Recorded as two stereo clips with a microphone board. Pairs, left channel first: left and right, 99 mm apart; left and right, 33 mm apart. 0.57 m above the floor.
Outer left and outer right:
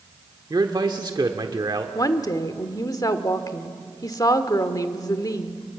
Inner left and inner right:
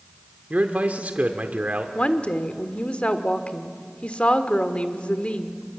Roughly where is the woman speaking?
Left.